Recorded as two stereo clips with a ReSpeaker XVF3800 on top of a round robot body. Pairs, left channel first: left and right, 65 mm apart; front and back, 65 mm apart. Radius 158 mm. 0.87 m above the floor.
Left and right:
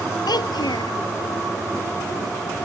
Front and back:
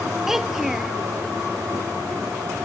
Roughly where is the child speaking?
Left.